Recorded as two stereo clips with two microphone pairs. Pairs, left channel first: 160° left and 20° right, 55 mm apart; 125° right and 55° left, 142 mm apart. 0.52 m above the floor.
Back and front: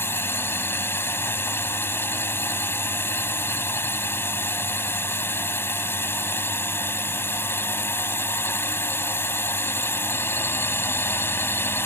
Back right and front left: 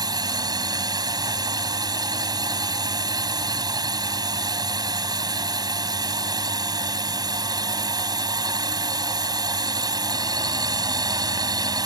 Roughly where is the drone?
Behind left.